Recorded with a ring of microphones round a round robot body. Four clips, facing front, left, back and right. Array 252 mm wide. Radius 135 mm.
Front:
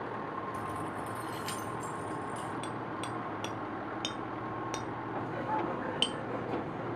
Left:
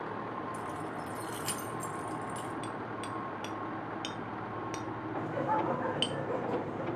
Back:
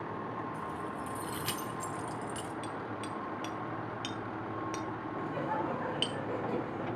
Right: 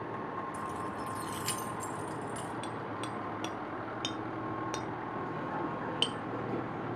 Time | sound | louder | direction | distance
0.5 | keys jangling | right 1 dB, front 1 dB | 10° right | 0.9 m
2.6 | hammering | even, front 1 dB | 45° right | 1.1 m
5.2 | laughter | left 7 dB, front 1 dB | 110° left | 2 m